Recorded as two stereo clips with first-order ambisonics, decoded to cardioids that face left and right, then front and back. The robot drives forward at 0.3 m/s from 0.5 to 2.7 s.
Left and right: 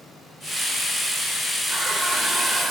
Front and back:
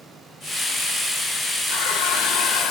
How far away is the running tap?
About 0.9 m.